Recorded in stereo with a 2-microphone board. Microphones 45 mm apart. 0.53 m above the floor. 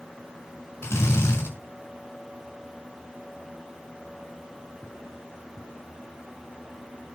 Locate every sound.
0.8 s a drill: 75° left (ahead or behind), 7 m